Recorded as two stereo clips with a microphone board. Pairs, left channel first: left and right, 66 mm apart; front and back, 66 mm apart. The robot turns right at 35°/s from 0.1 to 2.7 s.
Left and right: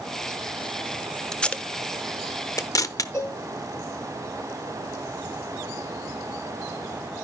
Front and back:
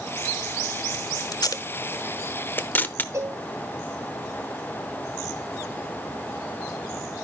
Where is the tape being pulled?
10° left, 0.7 m; by 3.0 s 60° left, 0.7 m.